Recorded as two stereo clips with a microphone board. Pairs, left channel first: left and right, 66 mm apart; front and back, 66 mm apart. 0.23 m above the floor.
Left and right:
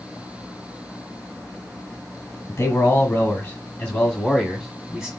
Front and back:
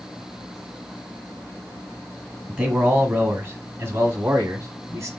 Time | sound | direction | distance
2.5 | a man speaking | 120° left | 1.6 m